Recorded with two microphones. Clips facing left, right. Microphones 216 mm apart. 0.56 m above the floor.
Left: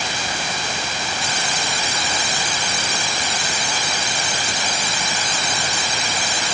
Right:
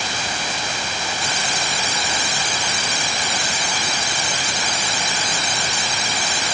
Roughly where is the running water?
No running water in this recording.